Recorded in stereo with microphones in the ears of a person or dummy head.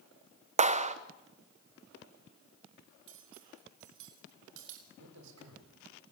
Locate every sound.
0.6 s a clap: 30° right (ahead or behind), 0.9 m
3.1 s cutlery clinking: 75° right (ahead or behind), 3.5 m
5.0 s a man speaking: 75° right (ahead or behind), 6 m